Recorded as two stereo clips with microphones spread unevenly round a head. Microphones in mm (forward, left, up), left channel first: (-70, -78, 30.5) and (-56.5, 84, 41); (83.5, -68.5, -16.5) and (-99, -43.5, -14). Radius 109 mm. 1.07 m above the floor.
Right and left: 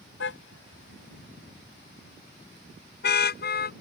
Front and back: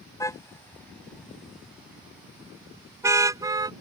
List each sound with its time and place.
0.2 s a car horn: 80° right; by 3.7 s 120° right